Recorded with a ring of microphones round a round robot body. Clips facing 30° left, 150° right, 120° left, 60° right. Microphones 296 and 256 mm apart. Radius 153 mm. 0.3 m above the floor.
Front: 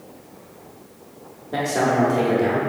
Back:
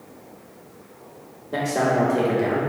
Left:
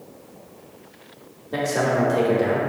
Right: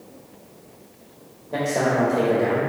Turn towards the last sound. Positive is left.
turn(degrees=130)